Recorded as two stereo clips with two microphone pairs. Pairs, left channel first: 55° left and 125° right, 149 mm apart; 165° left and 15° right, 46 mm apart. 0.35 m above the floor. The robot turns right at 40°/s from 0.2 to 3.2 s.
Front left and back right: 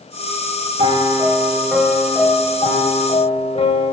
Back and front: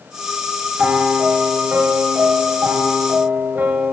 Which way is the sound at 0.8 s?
80° right.